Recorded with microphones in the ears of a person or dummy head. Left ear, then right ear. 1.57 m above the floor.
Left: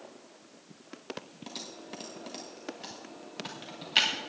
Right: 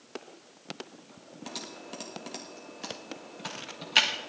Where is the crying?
I don't hear crying.